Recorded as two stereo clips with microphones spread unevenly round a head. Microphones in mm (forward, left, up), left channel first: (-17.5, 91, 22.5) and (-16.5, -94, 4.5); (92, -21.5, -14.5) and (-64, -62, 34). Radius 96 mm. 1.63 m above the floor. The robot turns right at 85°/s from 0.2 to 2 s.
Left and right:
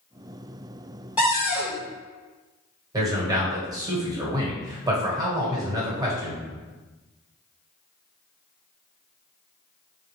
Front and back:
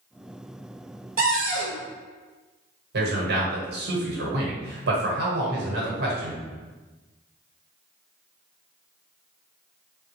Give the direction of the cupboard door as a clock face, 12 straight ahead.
6 o'clock.